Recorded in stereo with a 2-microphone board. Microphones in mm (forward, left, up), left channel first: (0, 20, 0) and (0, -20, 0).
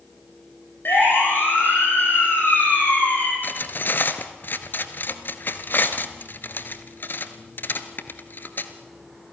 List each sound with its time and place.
0.8 s a siren: 70° left (ahead or behind), 9 m; by 3.3 s 55° left (ahead or behind), 8 m
3.4 s cutlery clinking: 60° left (ahead or behind), 1.5 m